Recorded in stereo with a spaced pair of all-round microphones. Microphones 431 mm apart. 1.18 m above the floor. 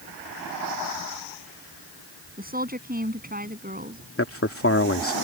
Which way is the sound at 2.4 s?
20° right (ahead or behind).